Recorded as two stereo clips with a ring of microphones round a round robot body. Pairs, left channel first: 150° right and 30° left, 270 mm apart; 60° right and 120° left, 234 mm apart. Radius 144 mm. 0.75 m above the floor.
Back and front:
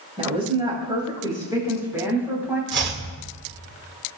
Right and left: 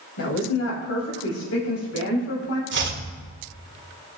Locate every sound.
0.2 s a woman speaking: 40° right, 5 m; by 2.6 s 55° right, 6 m
2.7 s chopping: 80° left, 1.7 m